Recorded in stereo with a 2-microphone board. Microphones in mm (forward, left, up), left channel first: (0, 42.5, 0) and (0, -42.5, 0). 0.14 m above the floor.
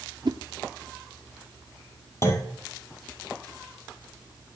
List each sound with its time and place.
0.2 s a whoosh: 60° right (ahead or behind), 0.6 m
2.2 s a clunk: 30° left (ahead or behind), 1.5 m